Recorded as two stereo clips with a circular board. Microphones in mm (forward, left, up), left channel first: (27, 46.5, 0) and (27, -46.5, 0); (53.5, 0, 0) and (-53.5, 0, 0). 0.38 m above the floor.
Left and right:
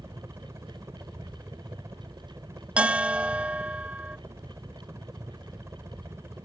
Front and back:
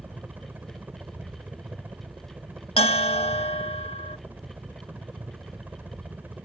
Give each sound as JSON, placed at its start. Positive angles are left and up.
{"t": 0.0, "sound": "a helicopter", "azimuth_deg": -120}
{"t": 2.8, "sound": "a bell", "azimuth_deg": -15}